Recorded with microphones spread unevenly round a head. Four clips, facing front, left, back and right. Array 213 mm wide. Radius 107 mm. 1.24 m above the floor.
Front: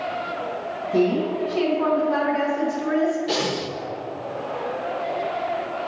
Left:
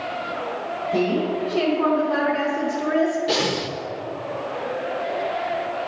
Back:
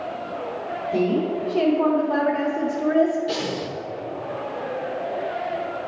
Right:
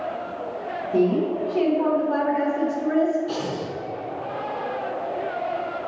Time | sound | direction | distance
0.9 | a woman speaking | 150° left | 2.5 m
3.3 | breathing | 80° left | 0.6 m